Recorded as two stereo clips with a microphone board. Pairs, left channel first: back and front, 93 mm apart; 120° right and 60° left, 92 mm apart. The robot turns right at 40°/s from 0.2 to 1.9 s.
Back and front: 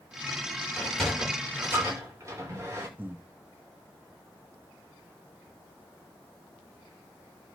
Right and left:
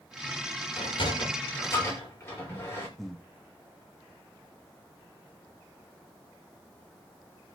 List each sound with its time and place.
0.8 s a sliding door: 100° right, 7 m; by 2.9 s 55° right, 7 m
3.0 s breathing: 40° right, 0.8 m